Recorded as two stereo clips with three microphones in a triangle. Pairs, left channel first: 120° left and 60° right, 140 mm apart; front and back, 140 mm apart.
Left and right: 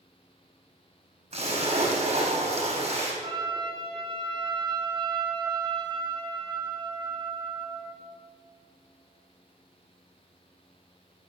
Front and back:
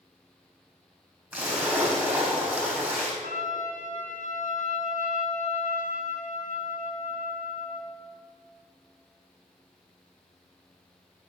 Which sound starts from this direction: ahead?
A trumpet, at 3.2 s.